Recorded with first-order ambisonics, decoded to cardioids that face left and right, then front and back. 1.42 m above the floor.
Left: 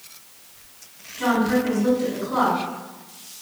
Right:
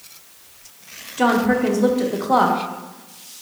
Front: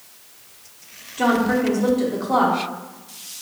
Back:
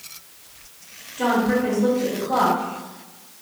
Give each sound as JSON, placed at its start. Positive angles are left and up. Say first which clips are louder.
{"t": 1.2, "sound": "a woman speaking", "louder": "right 4 dB, front 1 dB", "azimuth_deg": -75, "distance_m": 0.7}